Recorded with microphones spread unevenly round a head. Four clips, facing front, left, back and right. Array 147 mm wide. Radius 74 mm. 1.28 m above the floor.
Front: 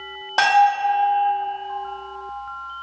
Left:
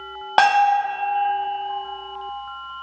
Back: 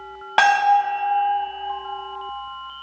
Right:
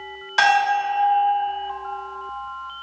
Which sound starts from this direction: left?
A bell, at 0.4 s.